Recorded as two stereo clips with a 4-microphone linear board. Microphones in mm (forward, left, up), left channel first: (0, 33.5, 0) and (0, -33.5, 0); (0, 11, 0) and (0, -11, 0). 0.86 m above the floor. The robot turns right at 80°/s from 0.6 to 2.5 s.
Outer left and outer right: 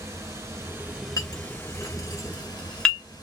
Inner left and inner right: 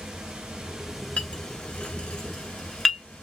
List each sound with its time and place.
0.0 s running water: 45° right, 1.2 m; by 3.2 s 105° left, 1.2 m
1.2 s a clink: 60° left (ahead or behind), 0.7 m; by 3.0 s 15° left (ahead or behind), 0.7 m